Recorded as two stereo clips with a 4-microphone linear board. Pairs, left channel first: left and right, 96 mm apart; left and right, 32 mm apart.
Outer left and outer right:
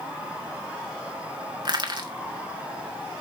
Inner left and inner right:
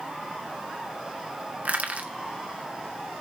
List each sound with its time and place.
1.6 s crushing: 50° right (ahead or behind), 1.7 m